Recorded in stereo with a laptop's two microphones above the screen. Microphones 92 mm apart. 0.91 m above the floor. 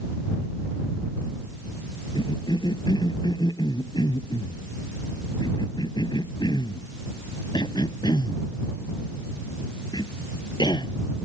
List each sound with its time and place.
2.1 s a cough: 50° left (ahead or behind)